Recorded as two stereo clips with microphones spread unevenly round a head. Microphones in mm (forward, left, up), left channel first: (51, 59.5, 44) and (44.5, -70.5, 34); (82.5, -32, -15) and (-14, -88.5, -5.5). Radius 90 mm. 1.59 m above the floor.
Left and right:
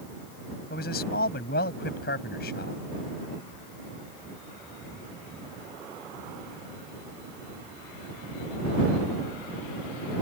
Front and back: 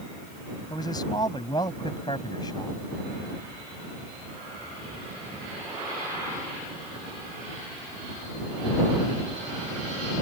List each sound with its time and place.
0.7 s a man speaking: 100° left